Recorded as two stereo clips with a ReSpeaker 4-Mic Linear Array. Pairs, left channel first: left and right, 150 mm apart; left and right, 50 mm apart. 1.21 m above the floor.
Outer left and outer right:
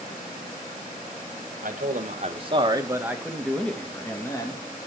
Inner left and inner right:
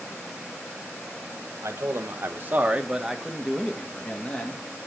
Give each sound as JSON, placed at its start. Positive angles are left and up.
{"t": 1.6, "sound": "a man speaking", "side_deg": -65, "distance_m": 1.8}